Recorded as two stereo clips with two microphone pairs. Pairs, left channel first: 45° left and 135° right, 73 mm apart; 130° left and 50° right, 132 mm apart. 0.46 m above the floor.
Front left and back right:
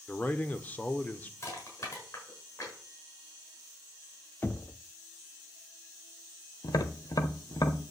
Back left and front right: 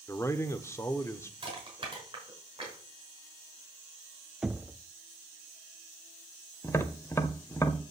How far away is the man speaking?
About 1.1 m.